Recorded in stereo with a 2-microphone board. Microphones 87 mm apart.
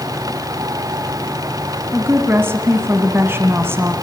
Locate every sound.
1.9 s a woman speaking: 30° right (ahead or behind), 1.4 m